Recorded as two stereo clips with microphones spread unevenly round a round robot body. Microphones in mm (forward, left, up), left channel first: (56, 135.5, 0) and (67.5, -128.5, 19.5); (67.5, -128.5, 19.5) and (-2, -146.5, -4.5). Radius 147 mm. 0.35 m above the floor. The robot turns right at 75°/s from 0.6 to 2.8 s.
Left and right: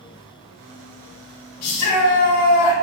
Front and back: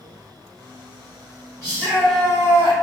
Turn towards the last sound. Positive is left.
turn(degrees=175)